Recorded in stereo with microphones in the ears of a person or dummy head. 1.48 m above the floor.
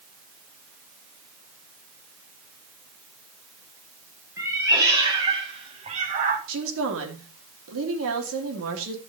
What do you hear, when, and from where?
4.4 s a cat meowing: 15° right (ahead or behind), 3.5 m; by 6.4 s 45° right (ahead or behind), 2.5 m
6.5 s a woman speaking: 80° right, 3 m